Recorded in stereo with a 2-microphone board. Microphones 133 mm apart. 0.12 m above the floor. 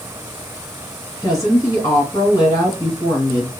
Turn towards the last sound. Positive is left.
turn(degrees=25)  # may be behind; listen again after turning